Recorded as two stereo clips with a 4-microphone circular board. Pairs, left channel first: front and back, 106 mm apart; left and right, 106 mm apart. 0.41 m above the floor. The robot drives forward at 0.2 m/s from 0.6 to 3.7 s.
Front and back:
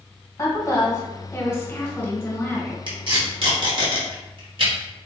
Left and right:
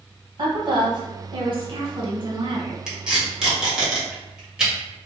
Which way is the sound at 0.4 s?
55° right.